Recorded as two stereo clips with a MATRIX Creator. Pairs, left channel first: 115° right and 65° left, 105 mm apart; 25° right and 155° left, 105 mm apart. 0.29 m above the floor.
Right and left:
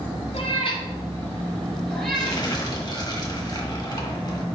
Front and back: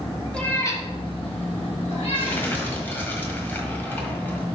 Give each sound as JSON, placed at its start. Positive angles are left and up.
{"t": 0.3, "sound": "a cat meowing", "azimuth_deg": -100, "distance_m": 1.3}
{"t": 2.1, "sound": "crumpling", "azimuth_deg": -85, "distance_m": 1.3}